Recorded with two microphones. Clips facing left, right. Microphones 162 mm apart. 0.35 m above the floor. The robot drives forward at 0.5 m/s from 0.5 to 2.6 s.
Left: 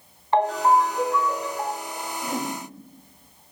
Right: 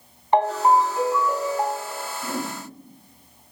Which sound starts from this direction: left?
A whoosh, at 2.2 s.